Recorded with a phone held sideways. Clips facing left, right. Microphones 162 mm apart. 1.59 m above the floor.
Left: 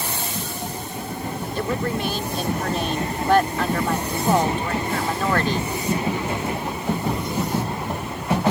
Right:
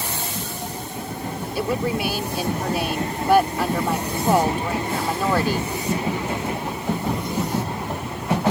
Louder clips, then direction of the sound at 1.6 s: Right 2 dB; 10° right (ahead or behind).